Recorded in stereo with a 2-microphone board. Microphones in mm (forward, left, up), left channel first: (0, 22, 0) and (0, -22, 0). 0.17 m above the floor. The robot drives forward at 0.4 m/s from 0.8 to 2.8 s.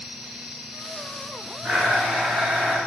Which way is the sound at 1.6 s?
20° right (ahead or behind).